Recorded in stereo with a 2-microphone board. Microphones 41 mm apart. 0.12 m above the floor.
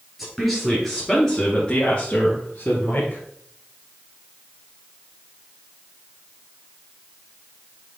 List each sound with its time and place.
0.2 s a woman speaking: centre (ahead or behind), 2.5 m; by 3.2 s 45° left (ahead or behind), 2.5 m